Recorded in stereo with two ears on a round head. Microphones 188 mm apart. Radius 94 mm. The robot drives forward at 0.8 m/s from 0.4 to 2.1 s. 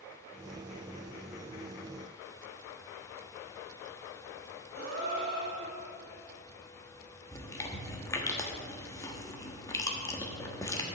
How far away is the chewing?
About 1.3 m.